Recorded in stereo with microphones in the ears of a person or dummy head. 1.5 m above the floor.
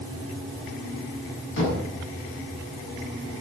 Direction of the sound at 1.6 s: 80° left.